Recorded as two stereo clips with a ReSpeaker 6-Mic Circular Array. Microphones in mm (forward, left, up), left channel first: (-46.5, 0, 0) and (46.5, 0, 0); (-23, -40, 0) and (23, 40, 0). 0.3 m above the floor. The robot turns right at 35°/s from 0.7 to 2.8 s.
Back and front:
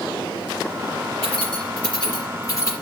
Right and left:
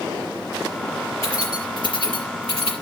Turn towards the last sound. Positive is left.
turn(degrees=-120)